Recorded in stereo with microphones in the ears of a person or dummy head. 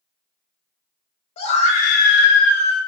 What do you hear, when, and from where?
1.4 s a scream: 30° left (ahead or behind), 0.9 m; by 2.8 s 20° left (ahead or behind), 0.7 m